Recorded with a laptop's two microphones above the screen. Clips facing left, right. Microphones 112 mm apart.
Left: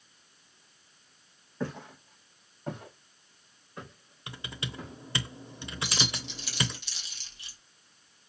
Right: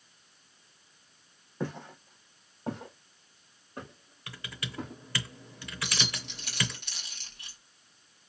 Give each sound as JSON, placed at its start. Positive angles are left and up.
{"t": 1.6, "sound": "footsteps", "side_deg": -20, "distance_m": 2.5}
{"t": 4.3, "sound": "typing on a keyboard", "side_deg": 25, "distance_m": 0.7}
{"t": 5.8, "sound": "keys jangling", "side_deg": -55, "distance_m": 1.3}